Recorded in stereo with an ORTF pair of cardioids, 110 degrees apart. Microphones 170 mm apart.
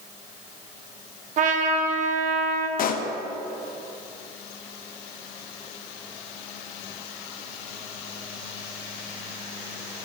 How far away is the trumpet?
About 1.0 m.